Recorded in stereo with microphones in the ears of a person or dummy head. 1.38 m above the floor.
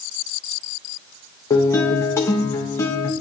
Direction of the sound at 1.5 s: 15° left (ahead or behind).